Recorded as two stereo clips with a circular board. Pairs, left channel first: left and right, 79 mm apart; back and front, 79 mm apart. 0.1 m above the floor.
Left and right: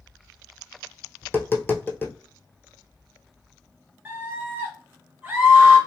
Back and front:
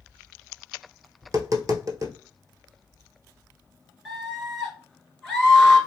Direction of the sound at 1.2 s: 30° left.